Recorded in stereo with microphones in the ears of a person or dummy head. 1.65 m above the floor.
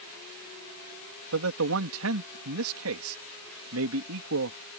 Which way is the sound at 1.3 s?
75° right (ahead or behind).